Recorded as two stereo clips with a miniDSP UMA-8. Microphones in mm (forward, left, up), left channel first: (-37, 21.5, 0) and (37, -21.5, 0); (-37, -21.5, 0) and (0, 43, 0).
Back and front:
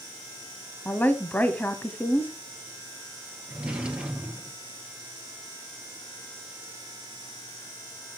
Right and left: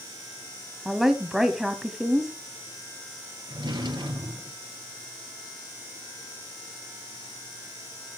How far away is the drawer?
About 2 m.